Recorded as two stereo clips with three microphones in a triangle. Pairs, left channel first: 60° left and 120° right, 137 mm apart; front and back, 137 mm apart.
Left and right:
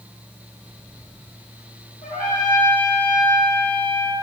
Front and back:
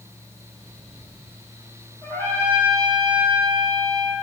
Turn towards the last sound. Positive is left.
turn(degrees=70)